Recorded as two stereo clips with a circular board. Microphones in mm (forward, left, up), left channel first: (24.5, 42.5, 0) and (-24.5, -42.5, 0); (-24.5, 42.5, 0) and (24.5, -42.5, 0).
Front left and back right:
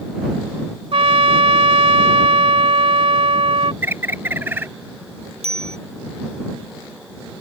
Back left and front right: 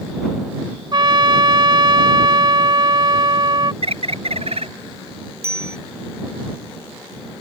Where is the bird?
50° right.